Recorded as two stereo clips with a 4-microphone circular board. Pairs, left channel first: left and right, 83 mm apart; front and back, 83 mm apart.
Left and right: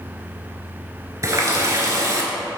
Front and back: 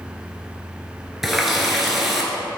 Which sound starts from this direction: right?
A running tap, at 1.2 s.